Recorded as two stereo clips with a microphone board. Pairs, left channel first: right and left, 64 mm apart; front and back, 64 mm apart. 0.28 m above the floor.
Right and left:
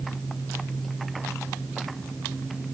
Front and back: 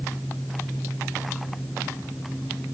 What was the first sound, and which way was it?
Only background noise.